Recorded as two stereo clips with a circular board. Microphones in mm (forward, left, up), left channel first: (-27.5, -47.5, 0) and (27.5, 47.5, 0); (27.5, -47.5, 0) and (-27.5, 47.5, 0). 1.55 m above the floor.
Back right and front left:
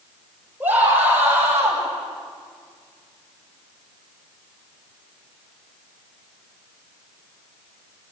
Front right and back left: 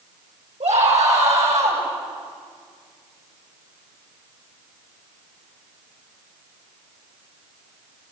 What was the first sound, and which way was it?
A scream, 135° left.